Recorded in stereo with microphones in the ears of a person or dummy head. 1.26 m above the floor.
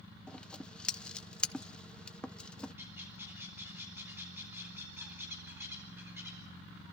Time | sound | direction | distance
0.3 | scissors | centre (ahead or behind) | 0.7 m
2.8 | a bird | 10° right (ahead or behind) | 4 m